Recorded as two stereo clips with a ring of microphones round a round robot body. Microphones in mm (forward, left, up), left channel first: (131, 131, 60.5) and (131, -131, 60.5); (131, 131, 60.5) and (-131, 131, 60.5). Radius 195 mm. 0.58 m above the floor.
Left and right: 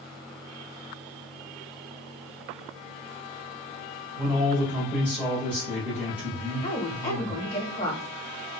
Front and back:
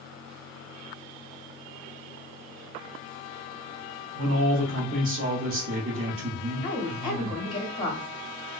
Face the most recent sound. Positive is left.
turn(degrees=25)